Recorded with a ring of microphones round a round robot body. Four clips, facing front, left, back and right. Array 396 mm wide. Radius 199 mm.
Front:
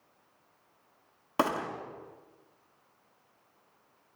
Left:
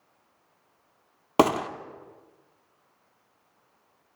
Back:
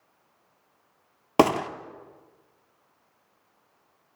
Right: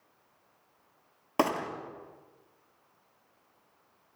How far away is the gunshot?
About 1.1 m.